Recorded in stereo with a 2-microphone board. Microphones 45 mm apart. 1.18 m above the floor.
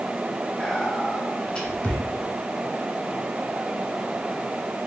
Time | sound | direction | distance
0.6 | whispering | 20° left (ahead or behind) | 0.8 m